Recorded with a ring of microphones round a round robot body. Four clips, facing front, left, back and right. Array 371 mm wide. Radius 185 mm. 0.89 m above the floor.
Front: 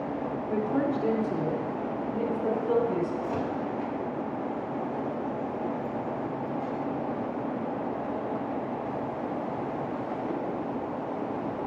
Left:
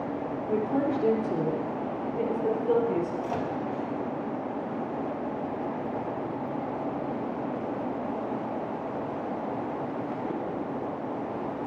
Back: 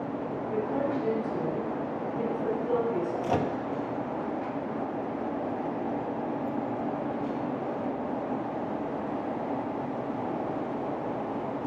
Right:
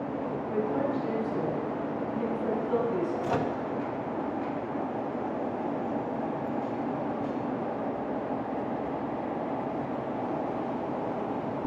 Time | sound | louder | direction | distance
0.5 | a woman speaking | left 3 dB, front 2 dB | 65° left | 1.9 m
3.2 | a microwave | right 2 dB, back 2 dB | 155° right | 0.8 m